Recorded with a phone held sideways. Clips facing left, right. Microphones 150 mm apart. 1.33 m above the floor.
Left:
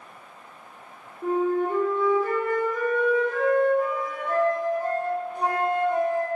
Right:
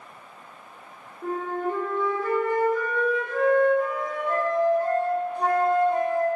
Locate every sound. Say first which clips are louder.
1.2 s a flute: left 5 dB; 10° left (ahead or behind), 1.0 m